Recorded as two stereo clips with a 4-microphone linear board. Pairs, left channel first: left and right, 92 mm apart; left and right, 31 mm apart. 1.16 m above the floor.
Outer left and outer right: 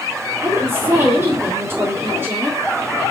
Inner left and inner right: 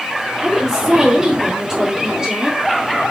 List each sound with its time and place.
0.4 s a woman speaking: 20° right (ahead or behind), 3.5 m